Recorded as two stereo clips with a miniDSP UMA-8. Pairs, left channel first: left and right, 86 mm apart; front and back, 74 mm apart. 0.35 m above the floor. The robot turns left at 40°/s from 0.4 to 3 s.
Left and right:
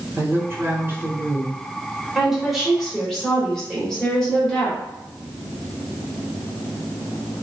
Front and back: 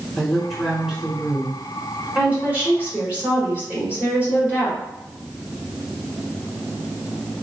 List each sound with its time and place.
0.2 s a woman speaking: 80° right, 1.1 m; by 1.6 s 130° right, 1.1 m
2.1 s a woman speaking: 165° right, 1.4 m; by 4.8 s 160° left, 1.4 m